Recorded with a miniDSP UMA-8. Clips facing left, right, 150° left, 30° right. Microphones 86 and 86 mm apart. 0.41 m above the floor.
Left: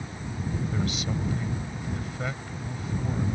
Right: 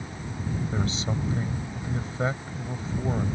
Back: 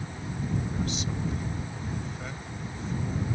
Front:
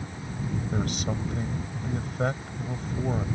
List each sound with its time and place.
0.7 s a man speaking: 35° right